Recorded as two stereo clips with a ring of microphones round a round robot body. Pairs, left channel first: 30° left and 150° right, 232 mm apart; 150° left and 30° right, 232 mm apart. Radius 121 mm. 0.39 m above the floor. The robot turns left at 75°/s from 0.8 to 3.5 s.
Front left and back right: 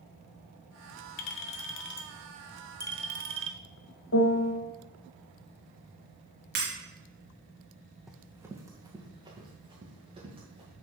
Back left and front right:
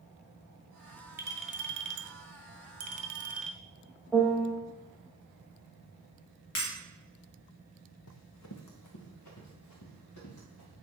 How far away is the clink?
About 1.1 m.